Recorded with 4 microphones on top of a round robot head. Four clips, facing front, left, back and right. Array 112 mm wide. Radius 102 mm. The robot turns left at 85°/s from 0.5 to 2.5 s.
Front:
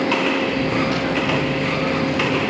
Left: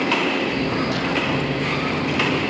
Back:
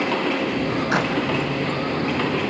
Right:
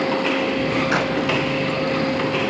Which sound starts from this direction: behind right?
A clap, at 0.9 s.